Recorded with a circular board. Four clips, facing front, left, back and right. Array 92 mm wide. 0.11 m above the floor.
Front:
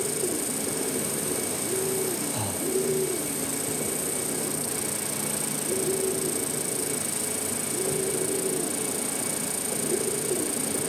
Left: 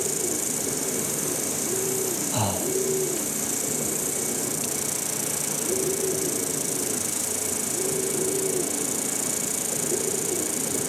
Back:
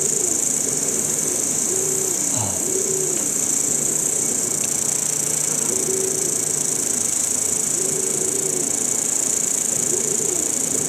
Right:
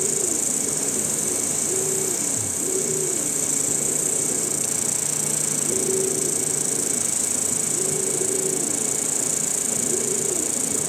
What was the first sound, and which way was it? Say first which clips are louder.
An insect: right 1 dB, back 1 dB; 175° left.